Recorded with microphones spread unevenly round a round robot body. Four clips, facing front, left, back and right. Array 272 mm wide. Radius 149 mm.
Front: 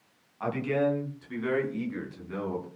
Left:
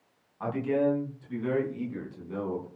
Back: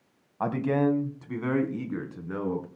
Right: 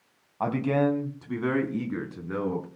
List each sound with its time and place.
0.4 s a man speaking: 140° right, 3 m; by 2.6 s 115° right, 5.5 m